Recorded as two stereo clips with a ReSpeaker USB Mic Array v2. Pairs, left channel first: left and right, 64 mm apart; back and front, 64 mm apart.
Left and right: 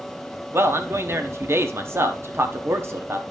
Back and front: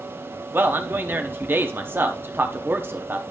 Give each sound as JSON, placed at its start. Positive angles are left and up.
{"t": 0.5, "sound": "a man speaking", "azimuth_deg": -50, "distance_m": 0.9}